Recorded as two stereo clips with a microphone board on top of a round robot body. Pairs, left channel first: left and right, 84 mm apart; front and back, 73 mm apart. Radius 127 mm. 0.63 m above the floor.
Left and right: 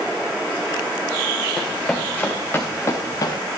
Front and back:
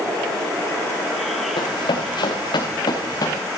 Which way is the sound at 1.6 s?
5° left.